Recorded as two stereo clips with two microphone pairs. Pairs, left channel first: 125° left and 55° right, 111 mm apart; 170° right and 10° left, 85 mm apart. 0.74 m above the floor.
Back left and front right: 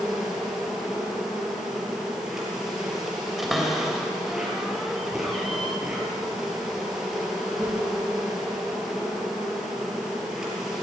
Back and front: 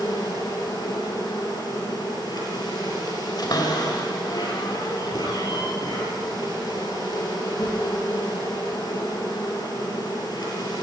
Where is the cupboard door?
145° right, 3.5 m.